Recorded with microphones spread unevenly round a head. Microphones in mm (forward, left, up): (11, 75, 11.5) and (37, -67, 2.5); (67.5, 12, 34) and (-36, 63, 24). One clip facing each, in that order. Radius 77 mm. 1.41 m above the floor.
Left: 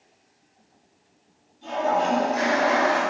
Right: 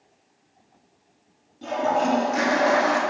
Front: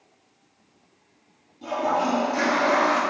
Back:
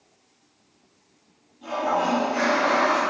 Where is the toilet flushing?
90° right, 0.7 m.